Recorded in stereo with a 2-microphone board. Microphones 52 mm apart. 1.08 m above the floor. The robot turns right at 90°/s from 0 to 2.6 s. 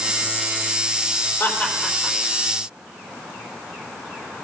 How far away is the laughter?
About 3.5 m.